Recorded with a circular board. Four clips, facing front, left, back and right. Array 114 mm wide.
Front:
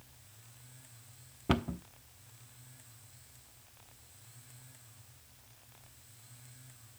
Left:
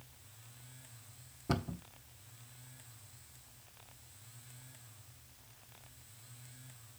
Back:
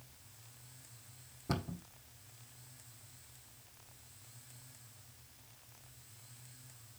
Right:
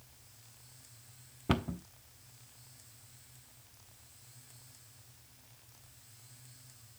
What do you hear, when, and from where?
1.5 s a cupboard door: 40° right, 0.9 m